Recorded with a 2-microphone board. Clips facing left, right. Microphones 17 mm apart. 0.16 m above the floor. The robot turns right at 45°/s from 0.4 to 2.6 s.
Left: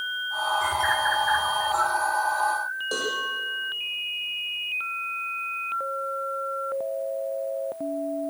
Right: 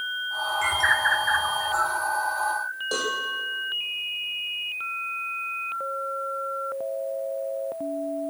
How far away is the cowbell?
About 7.5 m.